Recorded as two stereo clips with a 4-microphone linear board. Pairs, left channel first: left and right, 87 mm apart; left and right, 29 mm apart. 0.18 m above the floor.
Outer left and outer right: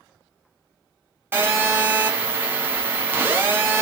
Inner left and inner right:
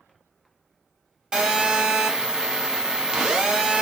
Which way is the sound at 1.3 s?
25° right (ahead or behind).